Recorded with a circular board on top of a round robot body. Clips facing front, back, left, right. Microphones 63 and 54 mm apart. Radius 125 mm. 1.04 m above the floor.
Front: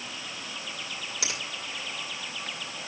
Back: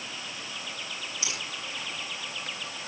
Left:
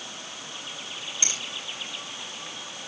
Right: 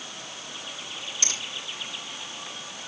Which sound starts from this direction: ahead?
A finger snap, at 1.2 s.